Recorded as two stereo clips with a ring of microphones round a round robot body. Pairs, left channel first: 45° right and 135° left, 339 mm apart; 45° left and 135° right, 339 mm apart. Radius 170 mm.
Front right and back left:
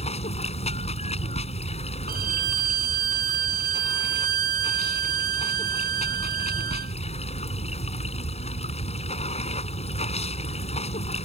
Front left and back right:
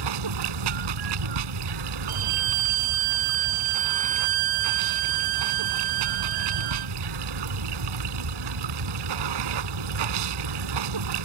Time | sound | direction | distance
0.0 | running water | 120° right | ?
2.1 | a violin | 160° right | ?